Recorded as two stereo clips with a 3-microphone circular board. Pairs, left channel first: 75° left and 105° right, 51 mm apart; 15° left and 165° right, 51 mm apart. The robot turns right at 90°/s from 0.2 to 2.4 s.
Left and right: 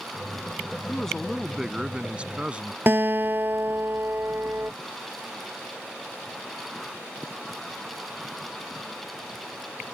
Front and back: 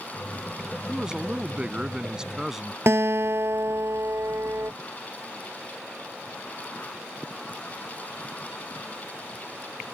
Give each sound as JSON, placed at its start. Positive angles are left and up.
{"t": 0.9, "sound": "a man speaking", "azimuth_deg": 125}
{"t": 2.9, "sound": "a guitar", "azimuth_deg": -145}